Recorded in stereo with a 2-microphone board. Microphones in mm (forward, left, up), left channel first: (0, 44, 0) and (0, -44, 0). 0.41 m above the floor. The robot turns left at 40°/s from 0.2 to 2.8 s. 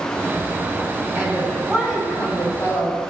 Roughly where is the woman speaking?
Behind right.